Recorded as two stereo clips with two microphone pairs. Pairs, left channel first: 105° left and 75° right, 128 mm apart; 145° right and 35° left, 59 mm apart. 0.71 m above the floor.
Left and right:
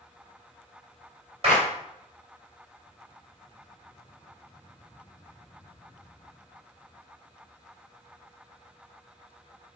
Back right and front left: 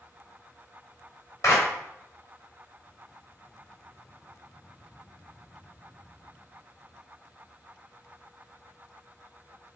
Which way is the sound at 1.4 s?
115° right.